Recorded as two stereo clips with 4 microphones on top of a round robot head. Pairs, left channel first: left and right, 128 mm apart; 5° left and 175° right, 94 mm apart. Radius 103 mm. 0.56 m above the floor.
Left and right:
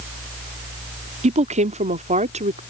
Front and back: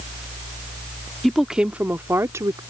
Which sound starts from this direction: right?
A woman speaking, at 1.2 s.